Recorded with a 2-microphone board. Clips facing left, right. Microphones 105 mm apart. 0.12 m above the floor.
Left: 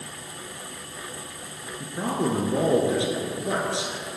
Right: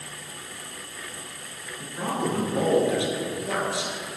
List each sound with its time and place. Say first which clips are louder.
1.8 s a man speaking: left 2 dB; 25° left (ahead or behind), 1.7 m